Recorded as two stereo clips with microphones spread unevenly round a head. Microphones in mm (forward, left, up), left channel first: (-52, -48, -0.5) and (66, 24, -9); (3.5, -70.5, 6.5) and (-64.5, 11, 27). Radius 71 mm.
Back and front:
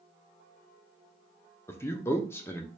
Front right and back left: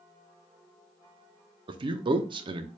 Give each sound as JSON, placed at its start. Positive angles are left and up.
{"t": 1.7, "sound": "a man speaking", "azimuth_deg": 145, "distance_m": 0.5}